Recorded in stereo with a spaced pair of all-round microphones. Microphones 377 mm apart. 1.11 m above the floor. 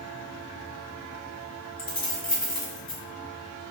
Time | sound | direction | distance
1.8 | keys jangling | 65° left (ahead or behind) | 0.9 m